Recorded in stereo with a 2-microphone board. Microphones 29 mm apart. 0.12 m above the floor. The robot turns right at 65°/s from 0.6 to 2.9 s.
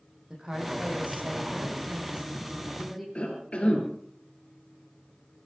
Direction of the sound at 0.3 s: 155° right.